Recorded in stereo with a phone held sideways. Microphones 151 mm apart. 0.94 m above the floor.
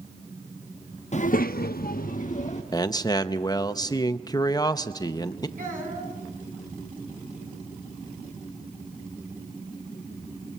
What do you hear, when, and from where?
1.1 s a child speaking: 50° left (ahead or behind), 0.7 m
2.7 s a man speaking: 25° left (ahead or behind), 0.8 m
5.6 s a child speaking: 65° right (ahead or behind), 6.5 m